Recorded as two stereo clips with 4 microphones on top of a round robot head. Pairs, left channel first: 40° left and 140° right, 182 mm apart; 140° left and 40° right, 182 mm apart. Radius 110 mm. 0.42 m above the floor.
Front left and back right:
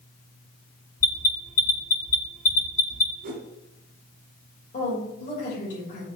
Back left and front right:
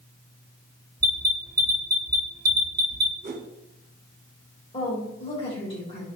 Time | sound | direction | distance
1.0 | an alarm | 20° left | 3 m
3.2 | a whoosh | 95° right | 1.8 m
4.7 | a woman speaking | 80° left | 3 m